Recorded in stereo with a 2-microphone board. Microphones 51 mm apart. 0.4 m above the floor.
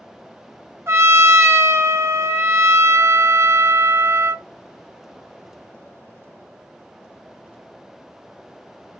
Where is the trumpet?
55° right (ahead or behind), 0.5 m.